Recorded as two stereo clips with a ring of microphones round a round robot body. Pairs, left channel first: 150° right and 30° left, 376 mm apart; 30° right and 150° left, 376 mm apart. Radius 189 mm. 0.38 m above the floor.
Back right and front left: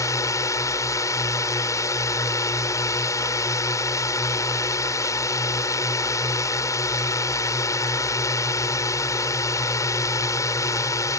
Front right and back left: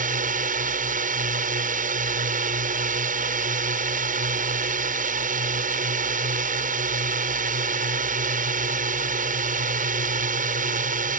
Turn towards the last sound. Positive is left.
turn(degrees=145)